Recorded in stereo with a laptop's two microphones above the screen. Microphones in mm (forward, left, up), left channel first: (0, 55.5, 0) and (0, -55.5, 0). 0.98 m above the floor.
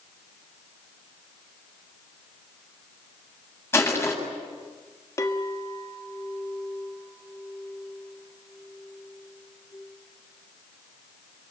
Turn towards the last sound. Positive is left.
turn(degrees=30)  # may be behind; listen again after turning